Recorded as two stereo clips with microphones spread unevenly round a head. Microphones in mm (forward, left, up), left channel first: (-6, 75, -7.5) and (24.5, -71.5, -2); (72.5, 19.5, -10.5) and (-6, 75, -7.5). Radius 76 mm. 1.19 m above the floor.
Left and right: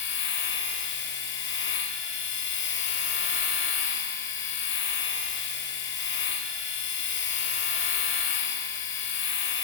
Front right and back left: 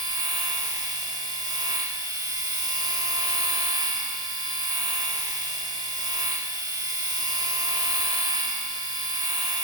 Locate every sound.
0.0 s a machine running: 100° left, 1.5 m